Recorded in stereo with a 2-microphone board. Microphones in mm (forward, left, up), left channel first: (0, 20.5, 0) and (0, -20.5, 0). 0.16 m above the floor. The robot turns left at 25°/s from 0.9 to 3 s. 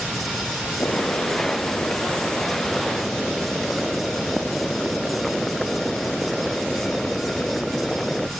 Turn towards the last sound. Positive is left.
turn(degrees=5)